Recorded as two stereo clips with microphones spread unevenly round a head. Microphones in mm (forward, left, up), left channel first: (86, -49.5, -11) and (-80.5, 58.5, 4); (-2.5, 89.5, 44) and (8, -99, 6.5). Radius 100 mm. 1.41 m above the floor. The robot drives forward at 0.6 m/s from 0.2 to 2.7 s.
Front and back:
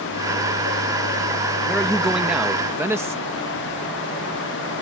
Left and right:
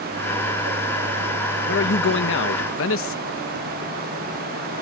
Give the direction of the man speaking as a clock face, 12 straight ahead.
10 o'clock.